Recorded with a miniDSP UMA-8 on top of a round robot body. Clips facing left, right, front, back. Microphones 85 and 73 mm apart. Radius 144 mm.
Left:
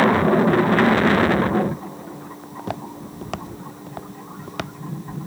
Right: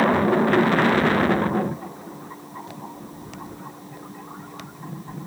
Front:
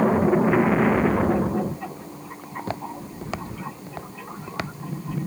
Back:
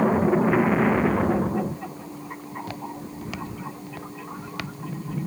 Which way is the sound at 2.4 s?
60° left.